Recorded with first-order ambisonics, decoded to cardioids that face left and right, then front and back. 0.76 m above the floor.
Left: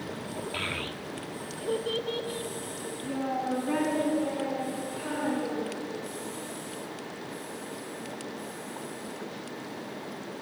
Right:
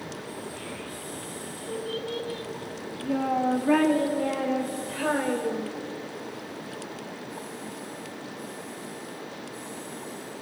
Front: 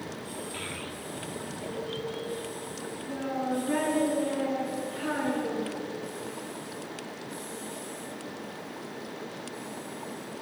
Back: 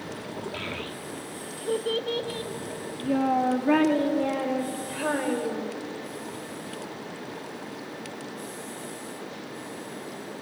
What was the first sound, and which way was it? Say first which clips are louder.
A child speaking: left 5 dB, back 3 dB; 105° left.